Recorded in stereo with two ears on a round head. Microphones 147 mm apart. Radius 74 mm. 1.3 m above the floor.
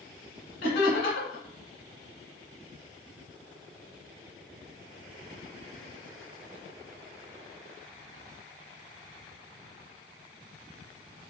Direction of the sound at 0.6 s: 60° left (ahead or behind).